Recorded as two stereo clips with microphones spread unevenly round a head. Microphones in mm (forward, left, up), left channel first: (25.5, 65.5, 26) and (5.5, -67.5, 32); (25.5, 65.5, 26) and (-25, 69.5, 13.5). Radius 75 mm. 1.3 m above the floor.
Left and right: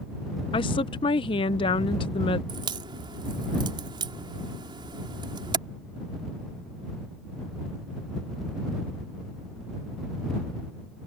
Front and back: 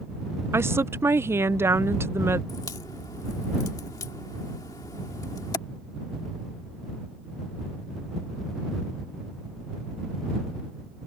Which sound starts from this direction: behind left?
A woman speaking, at 0.5 s.